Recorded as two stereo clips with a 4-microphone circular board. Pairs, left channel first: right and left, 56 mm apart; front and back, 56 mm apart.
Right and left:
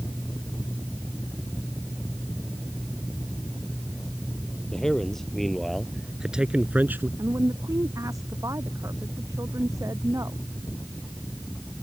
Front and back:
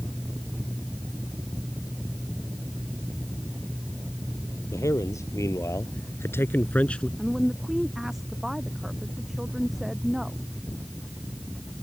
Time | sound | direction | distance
4.7 | a man speaking | 10° right | ?
7.2 | a woman speaking | 95° left | ?